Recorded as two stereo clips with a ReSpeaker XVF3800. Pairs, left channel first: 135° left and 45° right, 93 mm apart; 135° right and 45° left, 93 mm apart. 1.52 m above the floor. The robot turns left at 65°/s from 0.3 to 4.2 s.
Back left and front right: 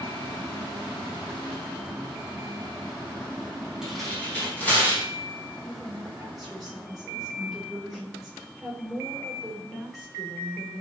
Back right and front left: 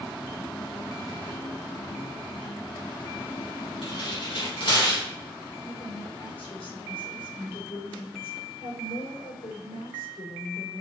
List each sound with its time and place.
3.8 s tearing paper: 130° right, 6 m; by 5.0 s 155° right, 6 m
5.6 s a woman speaking: 135° right, 5.5 m